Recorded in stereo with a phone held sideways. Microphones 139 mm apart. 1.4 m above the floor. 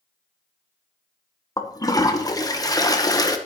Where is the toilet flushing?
25° left (ahead or behind), 0.9 m.